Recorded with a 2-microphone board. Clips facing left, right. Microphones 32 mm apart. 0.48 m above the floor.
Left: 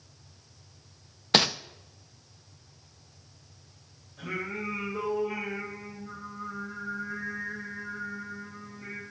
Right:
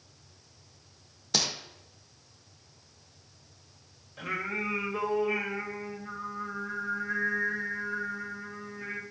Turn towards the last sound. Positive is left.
turn(degrees=-50)  # may be behind; listen again after turning